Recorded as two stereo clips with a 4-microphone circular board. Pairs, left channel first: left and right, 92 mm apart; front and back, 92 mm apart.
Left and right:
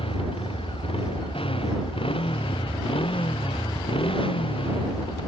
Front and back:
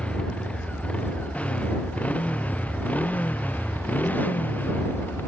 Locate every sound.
0.0 s a motorcycle: 75° left; by 5.3 s 70° left